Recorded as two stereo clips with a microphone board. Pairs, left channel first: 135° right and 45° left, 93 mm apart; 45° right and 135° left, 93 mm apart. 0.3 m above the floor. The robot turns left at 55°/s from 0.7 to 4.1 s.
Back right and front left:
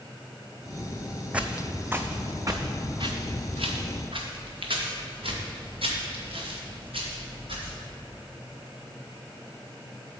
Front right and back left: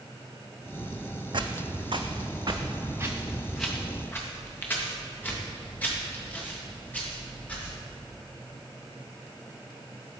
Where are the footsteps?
120° left, 0.6 m; by 7.8 s 30° left, 4 m.